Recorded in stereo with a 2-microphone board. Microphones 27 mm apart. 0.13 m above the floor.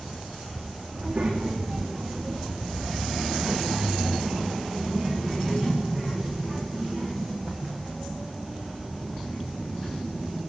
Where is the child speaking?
40° right (ahead or behind), 6.5 m; by 10.4 s 10° left (ahead or behind), 12 m.